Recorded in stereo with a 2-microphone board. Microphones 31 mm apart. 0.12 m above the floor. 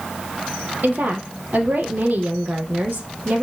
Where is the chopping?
I don't hear chopping.